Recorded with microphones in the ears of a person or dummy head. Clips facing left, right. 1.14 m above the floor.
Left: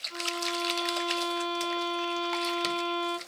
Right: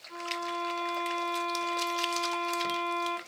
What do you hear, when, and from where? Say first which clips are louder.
0.1 s a violin: left 2 dB; 30° right (ahead or behind), 9.5 m